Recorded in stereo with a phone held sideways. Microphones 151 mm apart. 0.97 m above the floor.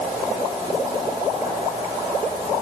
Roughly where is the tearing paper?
No tearing paper in this recording.